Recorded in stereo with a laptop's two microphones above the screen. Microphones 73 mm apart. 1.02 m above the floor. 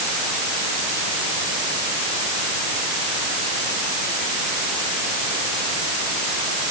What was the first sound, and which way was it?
Only background noise.